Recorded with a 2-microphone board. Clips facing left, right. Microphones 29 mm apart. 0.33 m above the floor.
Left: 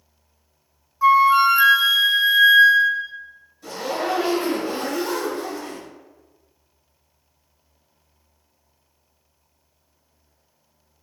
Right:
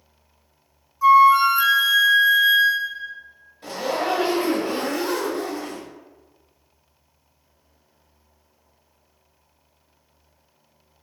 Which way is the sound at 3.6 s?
40° right (ahead or behind).